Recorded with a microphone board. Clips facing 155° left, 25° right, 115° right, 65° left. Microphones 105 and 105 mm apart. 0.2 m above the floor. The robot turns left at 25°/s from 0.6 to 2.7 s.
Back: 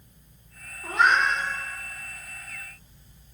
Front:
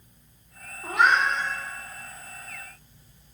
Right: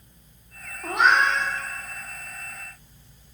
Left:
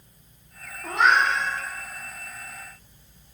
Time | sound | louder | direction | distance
0.8 | a cat meowing | even, even | 90° right | 3 m